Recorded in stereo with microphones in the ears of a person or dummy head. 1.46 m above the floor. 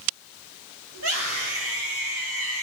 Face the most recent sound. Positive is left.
turn(degrees=-75)  # may be behind; listen again after turning